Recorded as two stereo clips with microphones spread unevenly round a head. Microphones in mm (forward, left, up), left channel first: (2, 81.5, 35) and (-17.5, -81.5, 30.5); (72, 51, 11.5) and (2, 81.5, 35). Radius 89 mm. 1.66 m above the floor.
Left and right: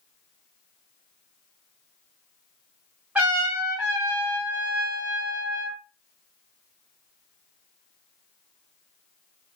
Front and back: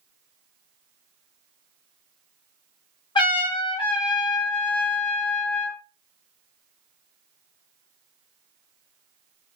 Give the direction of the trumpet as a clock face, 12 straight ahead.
1 o'clock.